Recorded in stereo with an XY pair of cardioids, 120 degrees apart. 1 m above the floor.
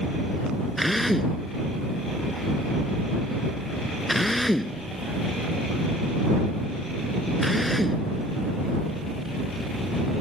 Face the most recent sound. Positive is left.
turn(degrees=5)